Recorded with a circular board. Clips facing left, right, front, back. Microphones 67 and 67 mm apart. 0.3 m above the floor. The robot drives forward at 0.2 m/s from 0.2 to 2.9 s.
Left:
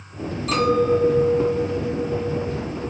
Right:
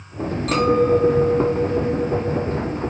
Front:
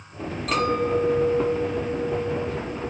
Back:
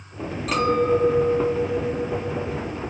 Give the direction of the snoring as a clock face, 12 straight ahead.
I don't hear snoring.